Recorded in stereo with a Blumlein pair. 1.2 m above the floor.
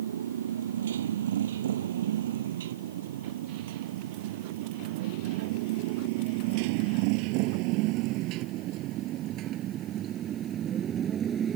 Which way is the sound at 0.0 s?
65° right.